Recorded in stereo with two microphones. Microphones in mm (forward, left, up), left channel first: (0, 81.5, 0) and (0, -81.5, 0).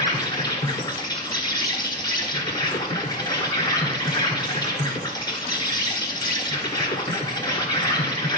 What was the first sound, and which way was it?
An insect, 25° left (ahead or behind).